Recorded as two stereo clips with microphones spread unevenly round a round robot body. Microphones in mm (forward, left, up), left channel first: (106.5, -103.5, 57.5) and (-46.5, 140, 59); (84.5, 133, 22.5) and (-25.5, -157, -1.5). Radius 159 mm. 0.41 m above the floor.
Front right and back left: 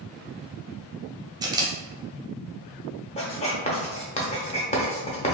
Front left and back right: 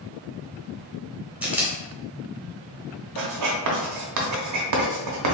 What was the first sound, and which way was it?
A camera shutter, straight behind.